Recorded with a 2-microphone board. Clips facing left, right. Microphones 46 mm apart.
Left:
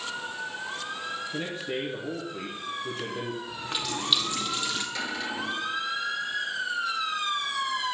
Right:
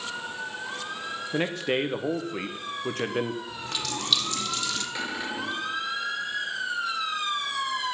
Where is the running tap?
15° left (ahead or behind), 1.8 m.